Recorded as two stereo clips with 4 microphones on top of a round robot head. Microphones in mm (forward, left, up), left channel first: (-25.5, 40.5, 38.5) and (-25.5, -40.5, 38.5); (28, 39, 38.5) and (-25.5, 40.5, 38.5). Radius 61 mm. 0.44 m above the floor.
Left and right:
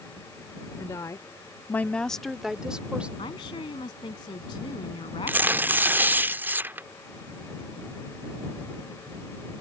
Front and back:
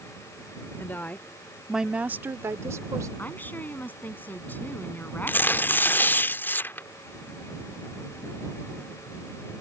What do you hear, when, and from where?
0.8 s a woman speaking: 40° left; by 3.1 s 165° right
3.2 s a woman speaking: 50° left
5.3 s tearing paper: 35° right